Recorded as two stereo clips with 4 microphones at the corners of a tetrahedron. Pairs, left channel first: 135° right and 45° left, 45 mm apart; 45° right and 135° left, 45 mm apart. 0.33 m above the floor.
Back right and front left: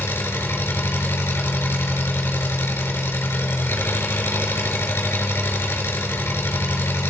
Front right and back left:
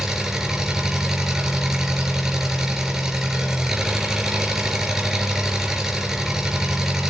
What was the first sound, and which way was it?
An engine running, 150° right.